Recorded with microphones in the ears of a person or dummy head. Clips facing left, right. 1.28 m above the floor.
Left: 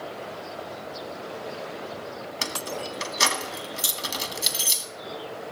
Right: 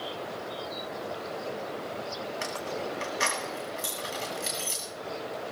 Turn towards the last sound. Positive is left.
turn(degrees=50)  # may be behind; listen again after turning